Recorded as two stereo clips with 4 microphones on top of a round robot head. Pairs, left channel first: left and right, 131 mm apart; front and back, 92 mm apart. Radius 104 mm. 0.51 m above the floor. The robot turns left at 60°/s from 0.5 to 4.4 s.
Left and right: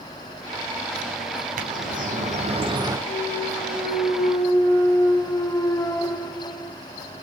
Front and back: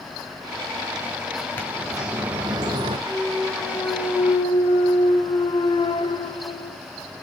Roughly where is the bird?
Right.